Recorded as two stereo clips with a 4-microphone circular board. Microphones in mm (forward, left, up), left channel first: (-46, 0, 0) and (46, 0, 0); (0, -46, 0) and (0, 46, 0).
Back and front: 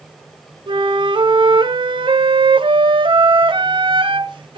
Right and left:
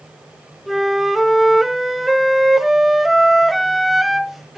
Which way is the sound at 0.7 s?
Straight ahead.